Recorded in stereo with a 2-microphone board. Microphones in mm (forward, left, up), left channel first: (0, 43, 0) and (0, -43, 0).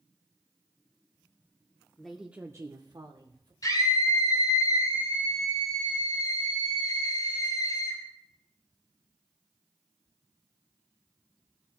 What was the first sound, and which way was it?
A woman speaking, 10° left (ahead or behind).